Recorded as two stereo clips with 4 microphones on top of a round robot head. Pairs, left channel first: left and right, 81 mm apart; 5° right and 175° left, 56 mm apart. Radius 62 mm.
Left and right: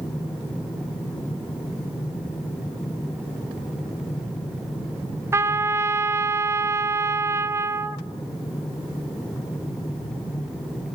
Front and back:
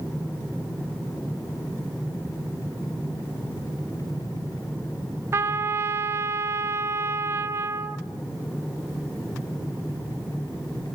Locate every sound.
5.3 s a trumpet: 145° right, 0.5 m